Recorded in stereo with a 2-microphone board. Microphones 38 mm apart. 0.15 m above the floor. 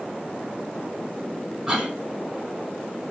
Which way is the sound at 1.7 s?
20° right (ahead or behind).